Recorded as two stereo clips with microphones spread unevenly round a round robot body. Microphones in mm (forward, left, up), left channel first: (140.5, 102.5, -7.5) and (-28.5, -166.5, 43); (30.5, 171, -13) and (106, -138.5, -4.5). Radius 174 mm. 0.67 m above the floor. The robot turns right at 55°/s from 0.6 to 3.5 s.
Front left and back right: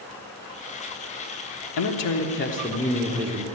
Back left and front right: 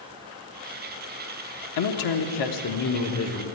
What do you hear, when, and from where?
1.8 s a man speaking: 75° left, 1.1 m; by 3.5 s 170° left, 1.1 m